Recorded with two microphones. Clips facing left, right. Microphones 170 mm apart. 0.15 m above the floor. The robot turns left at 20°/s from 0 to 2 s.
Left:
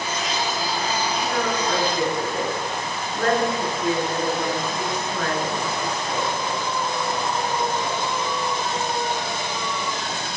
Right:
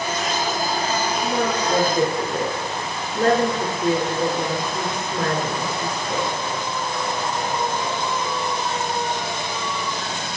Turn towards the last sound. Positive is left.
turn(degrees=-35)  # may be behind; listen again after turning